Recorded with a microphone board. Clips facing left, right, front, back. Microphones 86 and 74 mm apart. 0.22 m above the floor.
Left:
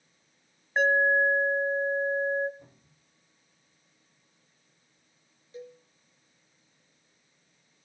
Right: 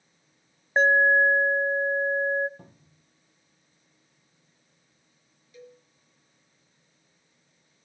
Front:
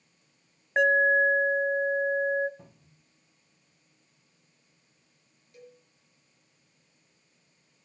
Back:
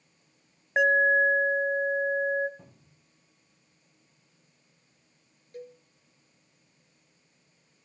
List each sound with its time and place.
0.8 s an alarm: 95° right, 1.0 m
2.6 s a cupboard door: 90° right, 4.5 m
5.5 s a cowbell: 145° left, 4 m